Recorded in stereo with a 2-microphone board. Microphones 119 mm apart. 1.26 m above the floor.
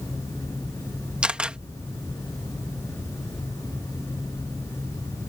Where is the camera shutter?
10° right (ahead or behind).